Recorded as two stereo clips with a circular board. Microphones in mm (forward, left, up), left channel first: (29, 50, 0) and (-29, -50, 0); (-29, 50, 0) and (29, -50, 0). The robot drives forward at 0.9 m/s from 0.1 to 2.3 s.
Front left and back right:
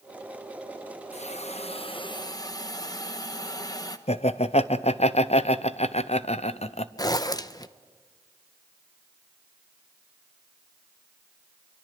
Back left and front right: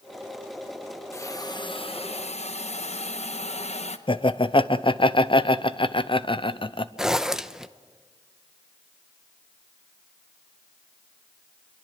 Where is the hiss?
55° left, 1.2 m; by 4.0 s 115° left, 1.1 m.